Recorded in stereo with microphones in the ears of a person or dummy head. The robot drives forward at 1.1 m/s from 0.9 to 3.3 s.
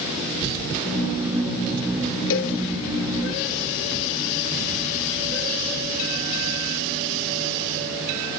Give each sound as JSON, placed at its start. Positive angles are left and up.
{"t": 2.3, "sound": "a cowbell", "side_deg": 70, "distance_m": 1.1}